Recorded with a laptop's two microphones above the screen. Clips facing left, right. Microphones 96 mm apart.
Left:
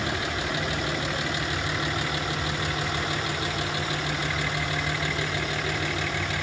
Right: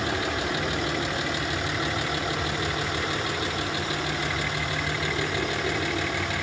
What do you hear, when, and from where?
0.0 s an aircraft: 35° right (ahead or behind)